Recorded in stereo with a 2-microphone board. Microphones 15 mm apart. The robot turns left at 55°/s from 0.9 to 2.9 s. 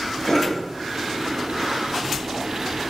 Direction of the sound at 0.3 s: 45° left (ahead or behind).